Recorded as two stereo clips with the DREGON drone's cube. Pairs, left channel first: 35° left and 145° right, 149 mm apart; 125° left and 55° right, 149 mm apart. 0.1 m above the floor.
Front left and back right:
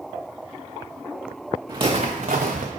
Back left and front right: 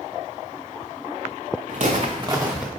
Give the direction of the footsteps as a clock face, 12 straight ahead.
3 o'clock.